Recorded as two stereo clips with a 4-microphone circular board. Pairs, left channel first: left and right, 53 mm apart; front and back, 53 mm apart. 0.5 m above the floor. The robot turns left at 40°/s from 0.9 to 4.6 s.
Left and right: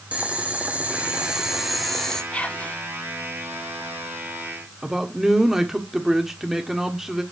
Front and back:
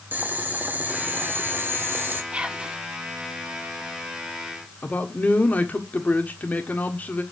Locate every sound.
0.1 s boiling: 145° right, 1.1 m; by 2.2 s 165° left, 1.1 m
2.3 s whispering: 135° left, 0.8 m; by 2.8 s 115° left, 0.8 m
4.8 s a man speaking: 15° right, 1.4 m